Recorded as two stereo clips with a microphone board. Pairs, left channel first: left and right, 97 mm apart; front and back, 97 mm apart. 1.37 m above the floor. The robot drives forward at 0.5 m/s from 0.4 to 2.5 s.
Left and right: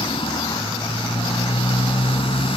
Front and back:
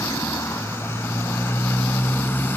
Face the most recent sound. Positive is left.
turn(degrees=70)